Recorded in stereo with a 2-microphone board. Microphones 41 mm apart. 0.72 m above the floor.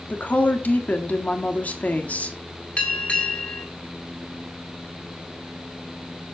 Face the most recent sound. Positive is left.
turn(degrees=30)  # may be behind; listen again after turning